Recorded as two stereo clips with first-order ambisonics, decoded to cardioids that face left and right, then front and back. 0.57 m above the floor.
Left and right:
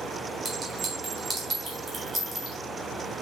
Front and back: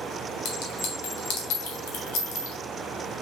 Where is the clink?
10° right, 1.5 m.